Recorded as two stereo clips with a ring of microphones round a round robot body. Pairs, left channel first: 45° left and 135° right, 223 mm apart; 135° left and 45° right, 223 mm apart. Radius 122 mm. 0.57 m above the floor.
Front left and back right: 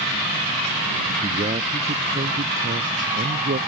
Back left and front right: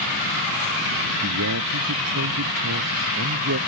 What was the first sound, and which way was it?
A man speaking, 70° right.